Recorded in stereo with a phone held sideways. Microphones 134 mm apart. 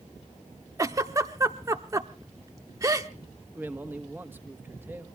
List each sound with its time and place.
0.8 s a giggle: 25° right (ahead or behind), 0.8 m
3.5 s a man speaking: 15° right (ahead or behind), 1.2 m